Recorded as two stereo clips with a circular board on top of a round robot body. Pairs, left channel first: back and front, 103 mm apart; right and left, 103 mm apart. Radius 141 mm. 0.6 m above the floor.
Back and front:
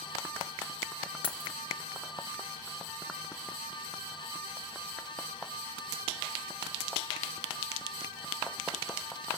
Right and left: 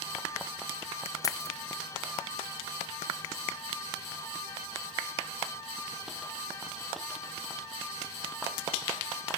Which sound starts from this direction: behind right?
Keys jangling, at 1.2 s.